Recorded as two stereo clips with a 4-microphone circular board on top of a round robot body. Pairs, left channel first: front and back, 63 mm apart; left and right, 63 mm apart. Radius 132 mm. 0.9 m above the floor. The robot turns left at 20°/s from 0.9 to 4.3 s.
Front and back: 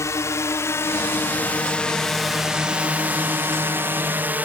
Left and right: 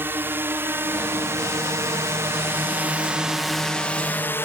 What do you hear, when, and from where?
0.0 s a drone: 35° right; by 4.5 s 125° left